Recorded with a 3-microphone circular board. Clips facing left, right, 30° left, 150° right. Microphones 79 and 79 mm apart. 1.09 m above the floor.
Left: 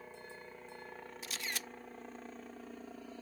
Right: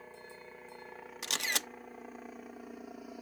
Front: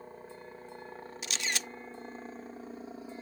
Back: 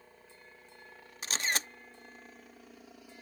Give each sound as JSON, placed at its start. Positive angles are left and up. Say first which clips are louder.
{"t": 0.0, "sound": "a helicopter", "louder": "even, front 10 dB", "azimuth_deg": -5}
{"t": 1.2, "sound": "a camera shutter", "louder": "right 7 dB, back 3 dB", "azimuth_deg": -100}